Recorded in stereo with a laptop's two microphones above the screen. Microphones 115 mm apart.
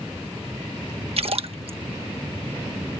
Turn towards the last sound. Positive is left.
turn(degrees=-55)  # may be behind; listen again after turning